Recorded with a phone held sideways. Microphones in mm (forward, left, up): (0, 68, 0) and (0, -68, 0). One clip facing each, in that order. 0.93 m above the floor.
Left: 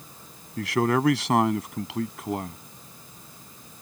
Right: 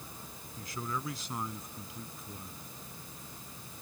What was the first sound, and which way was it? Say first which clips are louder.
A man speaking: left 16 dB; 85° left.